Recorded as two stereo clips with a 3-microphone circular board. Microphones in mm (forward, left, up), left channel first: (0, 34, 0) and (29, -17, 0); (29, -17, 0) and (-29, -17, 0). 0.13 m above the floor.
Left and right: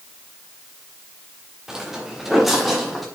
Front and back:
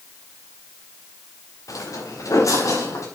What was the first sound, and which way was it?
Footsteps, 25° left.